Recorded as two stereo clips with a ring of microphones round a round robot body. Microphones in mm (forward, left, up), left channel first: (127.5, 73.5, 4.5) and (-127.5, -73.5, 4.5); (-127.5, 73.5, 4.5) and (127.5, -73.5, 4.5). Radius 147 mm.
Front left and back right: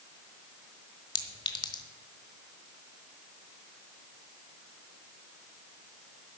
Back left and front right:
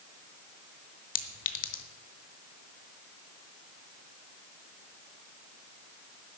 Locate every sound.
1.1 s a clink: 105° left, 1.3 m